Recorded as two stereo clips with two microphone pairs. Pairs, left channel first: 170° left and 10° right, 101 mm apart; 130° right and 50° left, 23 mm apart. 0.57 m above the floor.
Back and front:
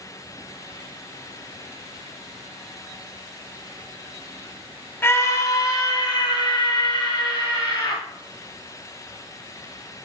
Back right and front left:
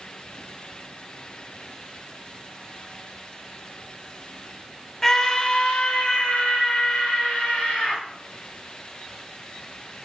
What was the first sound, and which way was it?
A scream, 170° right.